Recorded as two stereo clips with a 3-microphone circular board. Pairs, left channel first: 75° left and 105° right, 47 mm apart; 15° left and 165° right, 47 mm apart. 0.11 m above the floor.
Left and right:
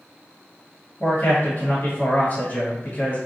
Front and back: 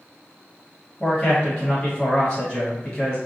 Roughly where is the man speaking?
Left.